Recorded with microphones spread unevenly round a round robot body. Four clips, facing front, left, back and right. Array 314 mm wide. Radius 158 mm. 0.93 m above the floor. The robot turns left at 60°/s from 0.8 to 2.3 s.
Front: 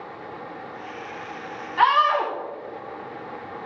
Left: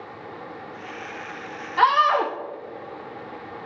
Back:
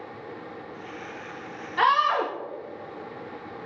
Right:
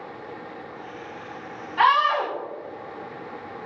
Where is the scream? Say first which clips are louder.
Left 1 dB, front 3 dB; 150° left, 1.6 m; by 2.3 s 115° left, 1.6 m.